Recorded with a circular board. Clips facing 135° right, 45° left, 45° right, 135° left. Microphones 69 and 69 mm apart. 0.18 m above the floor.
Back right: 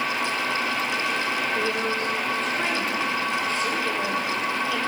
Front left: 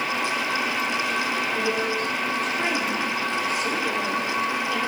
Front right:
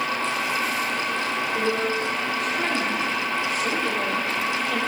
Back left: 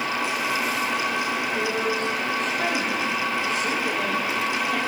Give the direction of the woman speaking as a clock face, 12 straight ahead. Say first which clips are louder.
Front left 1 dB, front right 2 dB; 1 o'clock.